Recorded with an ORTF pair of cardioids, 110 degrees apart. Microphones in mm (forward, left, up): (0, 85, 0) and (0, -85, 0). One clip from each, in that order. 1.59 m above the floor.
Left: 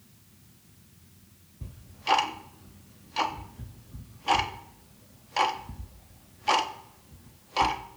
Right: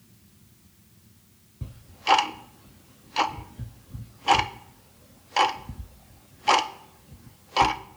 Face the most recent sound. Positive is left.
turn(degrees=-25)